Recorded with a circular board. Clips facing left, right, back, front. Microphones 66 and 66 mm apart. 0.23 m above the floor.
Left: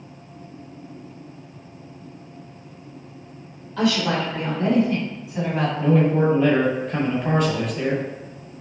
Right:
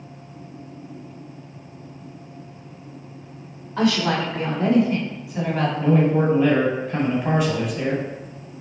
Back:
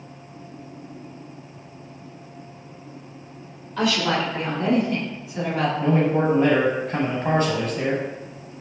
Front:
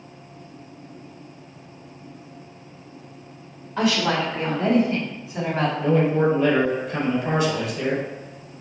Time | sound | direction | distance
3.8 | a woman speaking | 55° right | 1.8 m
5.8 | a man speaking | 175° right | 1.4 m